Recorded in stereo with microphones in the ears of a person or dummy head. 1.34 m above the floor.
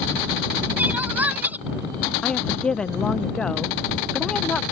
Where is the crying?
5° right (ahead or behind).